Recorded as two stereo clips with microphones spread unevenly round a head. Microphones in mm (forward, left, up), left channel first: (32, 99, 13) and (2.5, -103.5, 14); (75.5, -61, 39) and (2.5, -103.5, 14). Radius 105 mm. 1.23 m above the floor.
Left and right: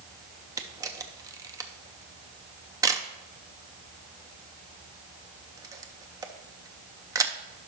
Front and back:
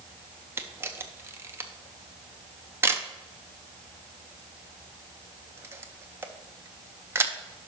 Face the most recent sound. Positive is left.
turn(degrees=-170)